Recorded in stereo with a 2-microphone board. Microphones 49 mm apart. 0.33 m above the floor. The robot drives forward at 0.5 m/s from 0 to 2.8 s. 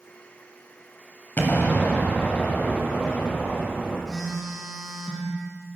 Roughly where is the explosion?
Left.